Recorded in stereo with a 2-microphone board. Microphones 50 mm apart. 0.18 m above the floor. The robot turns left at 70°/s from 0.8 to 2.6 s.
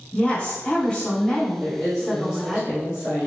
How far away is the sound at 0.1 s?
About 1.4 m.